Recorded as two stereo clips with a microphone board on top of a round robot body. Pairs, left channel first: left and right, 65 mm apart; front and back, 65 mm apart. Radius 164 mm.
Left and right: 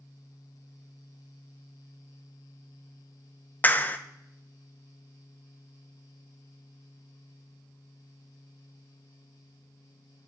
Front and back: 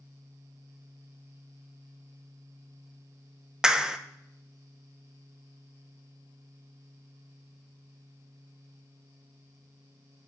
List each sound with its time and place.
3.6 s a clap: 110° left, 0.7 m